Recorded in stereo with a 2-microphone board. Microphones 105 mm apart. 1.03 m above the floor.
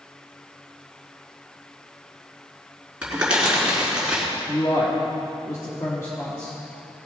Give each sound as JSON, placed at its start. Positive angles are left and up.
{"t": 3.0, "sound": "crumpling", "side_deg": -10, "distance_m": 4.0}
{"t": 4.5, "sound": "a man speaking", "side_deg": 30, "distance_m": 1.6}